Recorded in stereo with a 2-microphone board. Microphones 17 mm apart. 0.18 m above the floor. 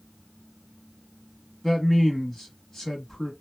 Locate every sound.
1.6 s a man speaking: 20° left (ahead or behind), 1.0 m